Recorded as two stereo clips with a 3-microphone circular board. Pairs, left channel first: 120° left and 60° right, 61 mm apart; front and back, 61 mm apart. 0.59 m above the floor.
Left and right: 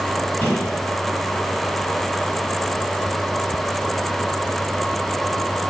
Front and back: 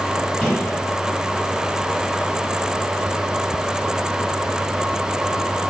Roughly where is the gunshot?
Left.